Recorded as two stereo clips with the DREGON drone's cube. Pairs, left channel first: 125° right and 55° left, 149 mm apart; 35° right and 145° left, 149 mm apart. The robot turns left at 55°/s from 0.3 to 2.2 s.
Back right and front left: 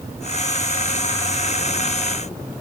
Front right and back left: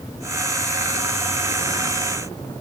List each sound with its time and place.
Only background noise.